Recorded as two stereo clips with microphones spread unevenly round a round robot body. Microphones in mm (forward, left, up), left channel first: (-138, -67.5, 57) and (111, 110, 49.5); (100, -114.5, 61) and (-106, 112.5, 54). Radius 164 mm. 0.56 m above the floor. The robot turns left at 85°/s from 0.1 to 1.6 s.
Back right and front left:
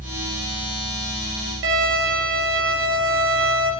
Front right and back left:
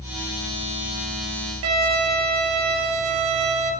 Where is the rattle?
I don't hear a rattle.